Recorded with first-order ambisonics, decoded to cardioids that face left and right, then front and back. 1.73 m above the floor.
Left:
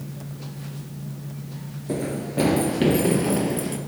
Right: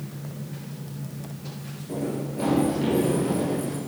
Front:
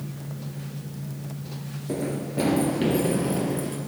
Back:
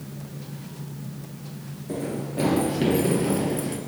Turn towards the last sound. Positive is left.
turn(degrees=105)